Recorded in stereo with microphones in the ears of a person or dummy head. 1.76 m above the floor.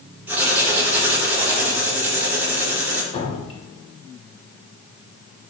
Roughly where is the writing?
Centre.